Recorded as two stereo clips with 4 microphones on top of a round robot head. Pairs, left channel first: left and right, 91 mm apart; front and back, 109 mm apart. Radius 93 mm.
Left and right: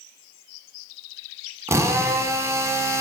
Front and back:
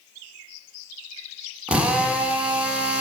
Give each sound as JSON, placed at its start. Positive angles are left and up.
{"t": 1.7, "sound": "a drill", "azimuth_deg": -110, "distance_m": 1.2}